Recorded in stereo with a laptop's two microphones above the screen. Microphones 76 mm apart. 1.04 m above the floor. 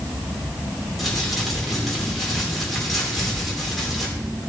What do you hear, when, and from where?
1.0 s crumpling: centre (ahead or behind), 3.5 m